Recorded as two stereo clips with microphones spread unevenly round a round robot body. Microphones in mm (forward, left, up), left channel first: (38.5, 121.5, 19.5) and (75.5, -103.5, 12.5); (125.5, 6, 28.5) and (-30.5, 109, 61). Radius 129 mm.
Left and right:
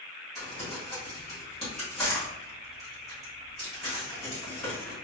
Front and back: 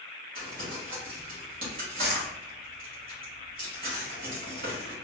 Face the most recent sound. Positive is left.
turn(degrees=-170)